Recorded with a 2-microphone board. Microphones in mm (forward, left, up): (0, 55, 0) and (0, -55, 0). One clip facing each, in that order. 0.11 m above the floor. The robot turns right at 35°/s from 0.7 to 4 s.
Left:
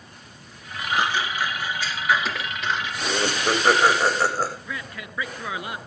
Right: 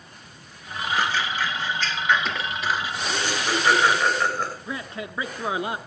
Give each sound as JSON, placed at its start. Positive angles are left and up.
{"t": 0.9, "sound": "scissors", "side_deg": 20, "distance_m": 1.1}
{"t": 3.0, "sound": "laughter", "azimuth_deg": 110, "distance_m": 6.5}
{"t": 4.7, "sound": "a man speaking", "side_deg": -25, "distance_m": 1.2}